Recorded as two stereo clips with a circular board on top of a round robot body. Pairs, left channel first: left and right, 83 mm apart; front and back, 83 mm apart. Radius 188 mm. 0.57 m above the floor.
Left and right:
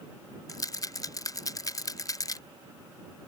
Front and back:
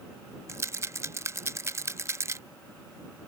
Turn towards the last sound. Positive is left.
turn(degrees=130)